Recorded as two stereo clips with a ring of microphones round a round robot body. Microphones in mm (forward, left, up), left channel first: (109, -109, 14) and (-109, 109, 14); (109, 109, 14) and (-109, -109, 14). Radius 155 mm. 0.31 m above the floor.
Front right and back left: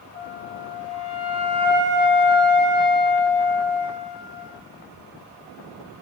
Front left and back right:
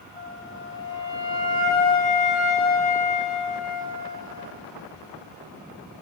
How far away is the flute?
About 1.1 m.